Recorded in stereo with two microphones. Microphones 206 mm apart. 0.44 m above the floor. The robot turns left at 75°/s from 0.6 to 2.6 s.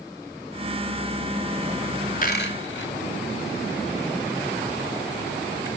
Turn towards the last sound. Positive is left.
turn(degrees=70)  # may be behind; listen again after turning